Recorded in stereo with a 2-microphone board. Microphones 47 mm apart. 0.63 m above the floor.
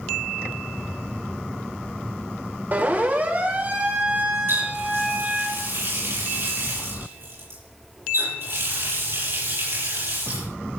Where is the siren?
40° right (ahead or behind), 2.5 m; by 5.5 s 30° right (ahead or behind), 4 m.